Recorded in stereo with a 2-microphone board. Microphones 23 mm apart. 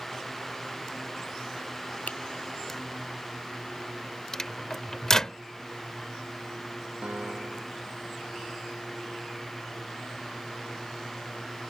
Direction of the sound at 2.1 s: 80° left.